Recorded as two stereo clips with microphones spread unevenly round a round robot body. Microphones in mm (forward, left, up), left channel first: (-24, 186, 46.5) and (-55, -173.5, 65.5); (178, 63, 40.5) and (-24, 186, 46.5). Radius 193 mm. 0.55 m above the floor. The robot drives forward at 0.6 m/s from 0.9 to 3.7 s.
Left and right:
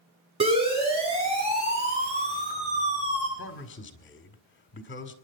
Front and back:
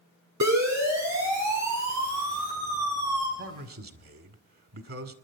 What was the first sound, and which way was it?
A siren, 170° right.